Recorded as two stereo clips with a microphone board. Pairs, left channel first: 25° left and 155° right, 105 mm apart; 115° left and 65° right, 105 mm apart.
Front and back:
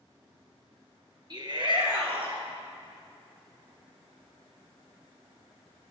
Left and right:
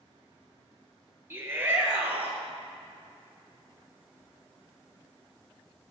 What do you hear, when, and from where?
1.3 s a shout: 130° right, 2.5 m; by 2.4 s 140° right, 3.5 m